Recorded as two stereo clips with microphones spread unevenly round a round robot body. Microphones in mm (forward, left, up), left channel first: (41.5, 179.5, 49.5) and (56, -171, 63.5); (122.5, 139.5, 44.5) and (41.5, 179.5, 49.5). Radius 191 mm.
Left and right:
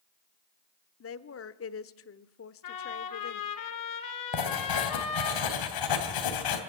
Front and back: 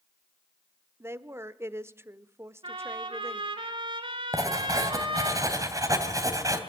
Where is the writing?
105° left, 3 m.